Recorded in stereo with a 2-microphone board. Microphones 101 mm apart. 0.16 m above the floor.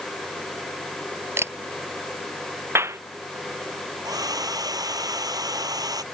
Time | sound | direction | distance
1.4 | a camera shutter | 25° right (ahead or behind) | ?
2.8 | a clap | 25° right (ahead or behind) | ?
4.0 | a hair dryer | 40° right (ahead or behind) | ?